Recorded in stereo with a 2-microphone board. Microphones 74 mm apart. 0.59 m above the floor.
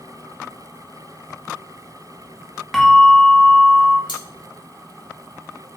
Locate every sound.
2.7 s a bell: 5° left (ahead or behind), 0.7 m
4.1 s cutlery clinking: 80° left, 1.4 m